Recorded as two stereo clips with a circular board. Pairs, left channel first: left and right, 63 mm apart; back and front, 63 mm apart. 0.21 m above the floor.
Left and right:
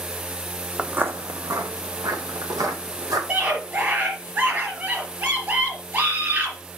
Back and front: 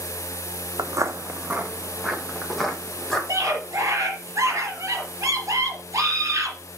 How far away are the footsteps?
About 0.8 m.